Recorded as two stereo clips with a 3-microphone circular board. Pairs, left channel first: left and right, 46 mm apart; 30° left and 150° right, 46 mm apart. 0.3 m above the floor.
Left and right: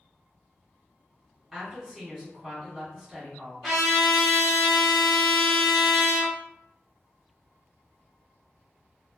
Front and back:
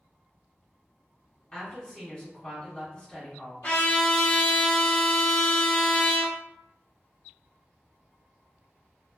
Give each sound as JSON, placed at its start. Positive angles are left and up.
{"t": 1.5, "sound": "a woman speaking", "azimuth_deg": -10, "distance_m": 1.8}
{"t": 3.6, "sound": "a trumpet", "azimuth_deg": 5, "distance_m": 1.1}